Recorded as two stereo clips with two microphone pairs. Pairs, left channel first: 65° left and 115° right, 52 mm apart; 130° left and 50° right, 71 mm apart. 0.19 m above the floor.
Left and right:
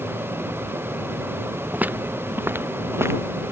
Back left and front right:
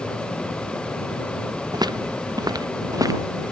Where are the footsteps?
55° right; by 3.5 s 85° right.